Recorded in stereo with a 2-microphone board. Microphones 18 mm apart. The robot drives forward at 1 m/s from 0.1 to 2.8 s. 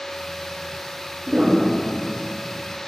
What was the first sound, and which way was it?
A piano, 80° right.